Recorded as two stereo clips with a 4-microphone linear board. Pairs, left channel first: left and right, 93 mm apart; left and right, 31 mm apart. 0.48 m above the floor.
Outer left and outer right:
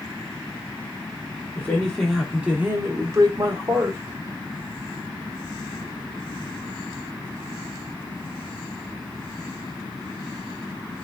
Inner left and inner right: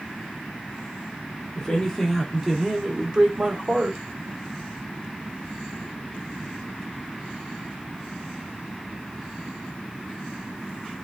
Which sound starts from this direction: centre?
A man speaking, at 1.6 s.